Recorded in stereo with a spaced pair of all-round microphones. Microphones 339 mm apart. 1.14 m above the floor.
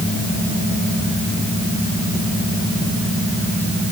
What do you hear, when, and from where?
Only background noise.